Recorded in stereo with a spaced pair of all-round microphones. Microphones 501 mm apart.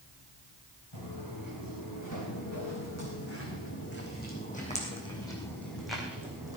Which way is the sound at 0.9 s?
45° left (ahead or behind).